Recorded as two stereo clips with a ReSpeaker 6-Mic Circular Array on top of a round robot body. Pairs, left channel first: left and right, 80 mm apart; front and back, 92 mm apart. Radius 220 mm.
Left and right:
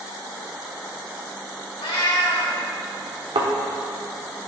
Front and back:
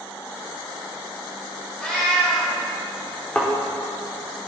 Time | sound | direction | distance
1.8 | a cat meowing | 80° left | 2.5 m
3.4 | a thud | 75° right | 1.0 m